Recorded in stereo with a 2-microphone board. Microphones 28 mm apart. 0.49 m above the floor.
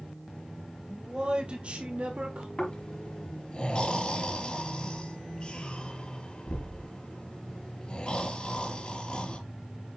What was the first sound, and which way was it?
A man speaking, 25° right (ahead or behind).